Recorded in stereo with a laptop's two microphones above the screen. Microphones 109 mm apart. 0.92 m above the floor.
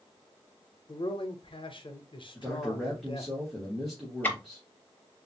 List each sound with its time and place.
0.9 s a man speaking: 50° left (ahead or behind), 0.7 m
2.4 s a man speaking: centre (ahead or behind), 1.0 m
4.2 s ticking: 15° left (ahead or behind), 0.7 m